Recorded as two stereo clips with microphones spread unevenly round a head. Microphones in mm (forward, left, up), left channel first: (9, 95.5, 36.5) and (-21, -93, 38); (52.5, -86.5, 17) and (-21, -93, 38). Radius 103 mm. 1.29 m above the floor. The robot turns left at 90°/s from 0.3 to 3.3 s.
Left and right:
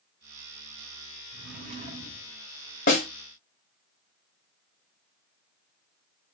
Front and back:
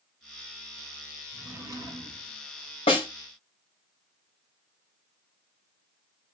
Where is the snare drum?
35° left, 1.8 m; by 3.1 s 20° left, 1.8 m.